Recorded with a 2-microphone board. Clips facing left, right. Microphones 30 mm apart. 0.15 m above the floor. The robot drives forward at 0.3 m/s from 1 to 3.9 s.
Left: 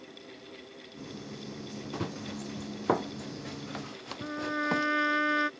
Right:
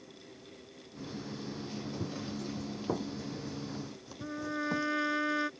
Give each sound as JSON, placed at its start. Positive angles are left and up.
{"t": 1.9, "sound": "running footsteps", "side_deg": 80}
{"t": 4.2, "sound": "a trumpet", "side_deg": 25}